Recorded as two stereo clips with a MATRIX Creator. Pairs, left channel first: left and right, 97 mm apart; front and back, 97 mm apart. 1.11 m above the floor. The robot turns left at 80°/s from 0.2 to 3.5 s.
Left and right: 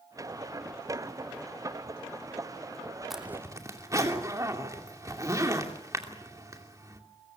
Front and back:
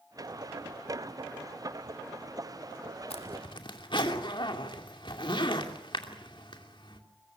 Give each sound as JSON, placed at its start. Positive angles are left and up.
{"t": 3.1, "sound": "a zipper", "azimuth_deg": 0, "distance_m": 2.5}